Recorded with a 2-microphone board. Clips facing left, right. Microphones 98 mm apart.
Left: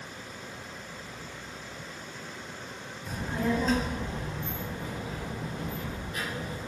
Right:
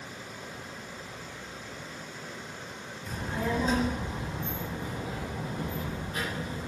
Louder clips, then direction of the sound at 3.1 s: Left 2 dB; 10° left (ahead or behind).